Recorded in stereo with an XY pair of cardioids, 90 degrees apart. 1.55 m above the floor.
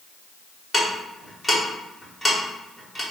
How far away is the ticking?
About 1.4 m.